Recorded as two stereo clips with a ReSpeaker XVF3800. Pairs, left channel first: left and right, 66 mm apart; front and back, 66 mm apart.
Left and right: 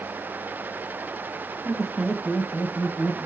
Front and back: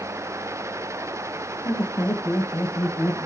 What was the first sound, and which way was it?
Laughter, 20° right.